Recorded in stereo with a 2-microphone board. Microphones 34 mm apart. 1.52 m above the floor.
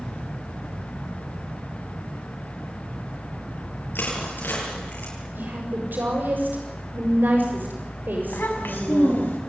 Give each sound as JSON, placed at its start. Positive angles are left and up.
{"t": 4.0, "sound": "crushing", "side_deg": 80, "distance_m": 9.0}
{"t": 5.3, "sound": "a woman speaking", "side_deg": -70, "distance_m": 7.0}
{"t": 8.3, "sound": "a child speaking", "side_deg": 80, "distance_m": 7.0}